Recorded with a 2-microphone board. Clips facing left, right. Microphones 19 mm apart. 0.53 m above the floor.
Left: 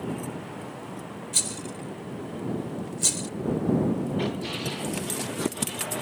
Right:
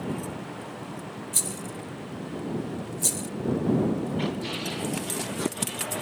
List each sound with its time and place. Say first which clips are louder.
1.3 s a rattle: left 3 dB; 25° left (ahead or behind)